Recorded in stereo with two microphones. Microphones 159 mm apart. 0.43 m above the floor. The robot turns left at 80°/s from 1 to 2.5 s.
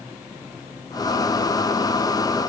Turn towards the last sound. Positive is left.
No sound to turn to.